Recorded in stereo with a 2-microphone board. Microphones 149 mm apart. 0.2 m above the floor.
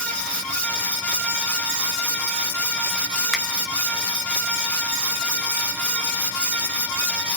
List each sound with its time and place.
3.3 s a finger snap: centre (ahead or behind), 1.0 m